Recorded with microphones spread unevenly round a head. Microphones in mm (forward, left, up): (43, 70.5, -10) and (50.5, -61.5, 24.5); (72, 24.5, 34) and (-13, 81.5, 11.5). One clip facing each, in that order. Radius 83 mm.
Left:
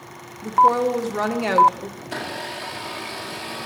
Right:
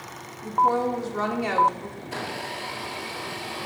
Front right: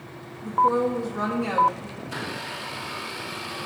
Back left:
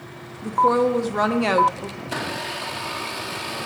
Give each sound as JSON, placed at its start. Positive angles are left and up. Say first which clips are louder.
{"t": 0.4, "sound": "a woman speaking", "louder": "left 5 dB, back left 3 dB", "azimuth_deg": 140, "distance_m": 0.9}
{"t": 2.0, "sound": "a blender", "louder": "left 2 dB, back left 6 dB", "azimuth_deg": 130, "distance_m": 1.6}